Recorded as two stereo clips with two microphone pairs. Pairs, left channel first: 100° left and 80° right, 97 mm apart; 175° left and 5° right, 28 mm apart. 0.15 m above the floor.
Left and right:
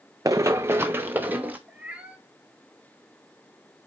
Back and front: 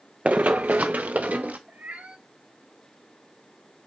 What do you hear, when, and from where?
0.2 s running footsteps: 30° right, 0.5 m; by 1.6 s 10° right, 1.5 m
1.7 s a cat meowing: 5° right, 1.2 m